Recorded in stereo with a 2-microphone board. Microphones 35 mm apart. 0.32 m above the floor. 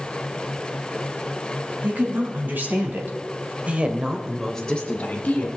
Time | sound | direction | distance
1.8 | a woman speaking | 65° right (ahead or behind) | 3 m